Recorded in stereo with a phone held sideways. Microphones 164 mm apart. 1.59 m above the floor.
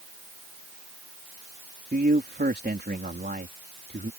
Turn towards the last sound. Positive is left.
turn(degrees=-80)